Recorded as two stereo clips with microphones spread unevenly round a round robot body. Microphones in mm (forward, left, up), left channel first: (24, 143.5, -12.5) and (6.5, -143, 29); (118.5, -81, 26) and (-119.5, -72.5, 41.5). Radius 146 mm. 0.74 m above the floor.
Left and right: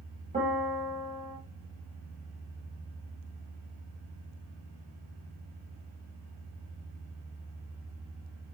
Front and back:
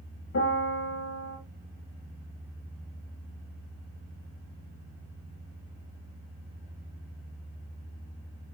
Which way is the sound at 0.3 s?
25° right.